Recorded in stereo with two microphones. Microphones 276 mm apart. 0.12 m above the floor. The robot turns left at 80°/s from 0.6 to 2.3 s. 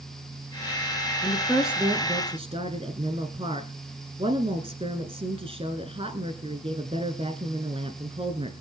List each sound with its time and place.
1.2 s a woman speaking: 10° left (ahead or behind), 1.3 m; by 8.5 s 20° right (ahead or behind), 1.3 m